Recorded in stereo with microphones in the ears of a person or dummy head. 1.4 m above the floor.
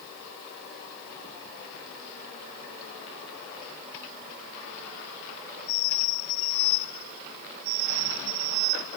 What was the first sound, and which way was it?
Only background noise.